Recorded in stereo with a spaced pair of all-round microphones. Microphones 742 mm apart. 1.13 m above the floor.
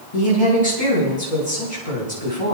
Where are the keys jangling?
No keys jangling in this recording.